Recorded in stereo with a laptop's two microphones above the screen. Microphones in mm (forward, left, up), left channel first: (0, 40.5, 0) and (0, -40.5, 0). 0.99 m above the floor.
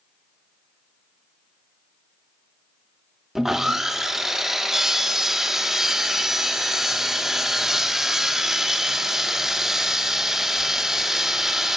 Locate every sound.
3.4 s sawing: 5° right (ahead or behind), 1.2 m